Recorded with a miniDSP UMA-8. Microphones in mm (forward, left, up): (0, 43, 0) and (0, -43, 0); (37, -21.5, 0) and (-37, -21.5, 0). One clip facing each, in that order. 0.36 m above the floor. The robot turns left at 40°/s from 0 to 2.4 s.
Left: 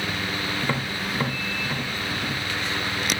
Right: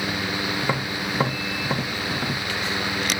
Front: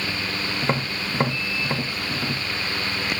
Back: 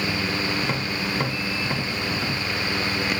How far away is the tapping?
About 0.7 m.